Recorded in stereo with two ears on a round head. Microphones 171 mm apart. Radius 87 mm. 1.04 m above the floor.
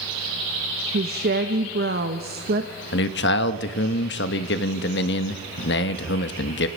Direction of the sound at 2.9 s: 65° left (ahead or behind).